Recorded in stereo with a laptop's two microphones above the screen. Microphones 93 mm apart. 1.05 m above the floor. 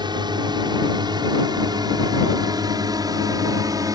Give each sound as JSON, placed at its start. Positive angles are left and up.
{"t": 0.0, "sound": "a drone", "side_deg": -55}